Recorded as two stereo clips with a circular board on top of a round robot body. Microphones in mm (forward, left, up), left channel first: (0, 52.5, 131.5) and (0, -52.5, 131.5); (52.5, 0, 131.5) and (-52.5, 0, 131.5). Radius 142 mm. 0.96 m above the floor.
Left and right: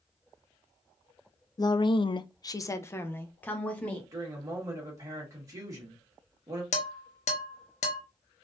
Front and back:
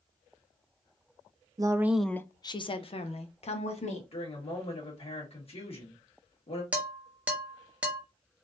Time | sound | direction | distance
1.6 | a woman speaking | 135° left | 0.5 m
4.1 | a woman speaking | 30° right | 1.7 m
6.7 | dishes clattering | 100° left | 0.8 m